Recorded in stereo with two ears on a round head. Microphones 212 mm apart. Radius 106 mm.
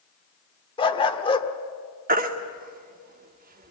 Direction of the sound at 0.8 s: 20° left (ahead or behind).